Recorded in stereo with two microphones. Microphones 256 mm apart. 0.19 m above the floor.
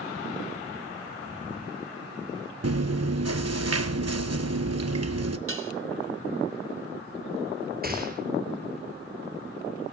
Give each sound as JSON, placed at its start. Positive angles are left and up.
{"t": 2.6, "sound": "chewing", "side_deg": -75, "distance_m": 0.8}
{"t": 5.5, "sound": "dishes clattering", "side_deg": -55, "distance_m": 1.4}
{"t": 7.8, "sound": "a gunshot", "side_deg": -35, "distance_m": 3.0}